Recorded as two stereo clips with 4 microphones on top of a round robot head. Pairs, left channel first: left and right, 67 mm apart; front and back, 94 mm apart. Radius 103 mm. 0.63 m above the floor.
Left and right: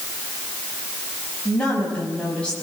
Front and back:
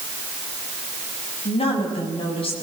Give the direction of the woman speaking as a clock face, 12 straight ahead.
12 o'clock.